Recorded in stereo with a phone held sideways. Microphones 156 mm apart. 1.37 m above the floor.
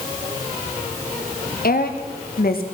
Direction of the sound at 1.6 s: 75° left (ahead or behind).